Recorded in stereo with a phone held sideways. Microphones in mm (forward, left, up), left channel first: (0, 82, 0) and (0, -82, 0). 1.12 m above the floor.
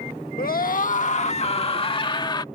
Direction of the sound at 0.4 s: 65° left (ahead or behind).